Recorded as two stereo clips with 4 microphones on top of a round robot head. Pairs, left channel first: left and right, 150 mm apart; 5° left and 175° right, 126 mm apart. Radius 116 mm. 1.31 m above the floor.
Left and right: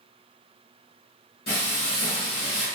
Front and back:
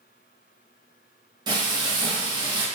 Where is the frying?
130° left, 0.9 m.